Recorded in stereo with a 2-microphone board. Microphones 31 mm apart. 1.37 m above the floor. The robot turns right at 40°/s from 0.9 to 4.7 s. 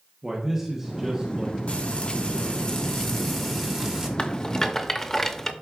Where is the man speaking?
15° right (ahead or behind), 1.1 m; by 1.6 s 40° right (ahead or behind), 1.1 m.